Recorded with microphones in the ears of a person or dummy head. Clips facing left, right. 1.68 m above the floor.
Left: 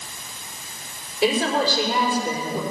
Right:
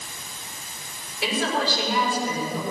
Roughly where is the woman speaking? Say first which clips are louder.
Left 5 dB; left.